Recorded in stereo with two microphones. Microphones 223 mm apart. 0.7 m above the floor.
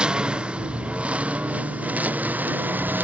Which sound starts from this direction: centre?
A lawn mower, at 0.0 s.